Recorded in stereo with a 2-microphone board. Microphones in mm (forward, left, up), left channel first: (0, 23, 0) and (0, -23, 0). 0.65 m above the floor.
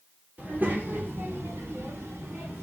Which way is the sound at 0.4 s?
40° right (ahead or behind).